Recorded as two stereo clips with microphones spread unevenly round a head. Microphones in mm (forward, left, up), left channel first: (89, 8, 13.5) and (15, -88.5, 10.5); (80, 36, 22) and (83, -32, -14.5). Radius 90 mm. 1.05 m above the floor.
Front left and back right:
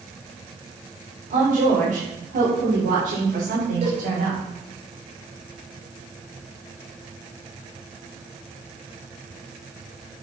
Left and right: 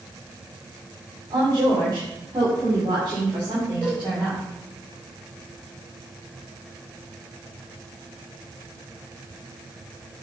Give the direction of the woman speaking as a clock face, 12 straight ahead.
4 o'clock.